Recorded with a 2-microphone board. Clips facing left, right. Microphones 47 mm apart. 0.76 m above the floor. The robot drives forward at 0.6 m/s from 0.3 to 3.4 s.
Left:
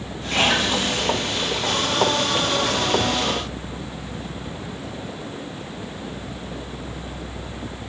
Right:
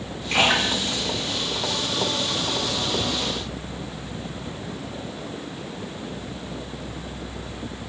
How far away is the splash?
About 1.6 m.